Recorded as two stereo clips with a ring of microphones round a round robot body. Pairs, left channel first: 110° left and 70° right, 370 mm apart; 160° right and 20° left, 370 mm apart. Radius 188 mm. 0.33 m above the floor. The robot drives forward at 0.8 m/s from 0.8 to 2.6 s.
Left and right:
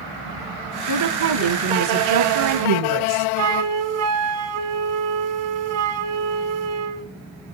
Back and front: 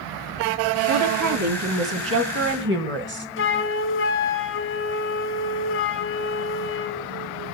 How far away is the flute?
About 1.4 m.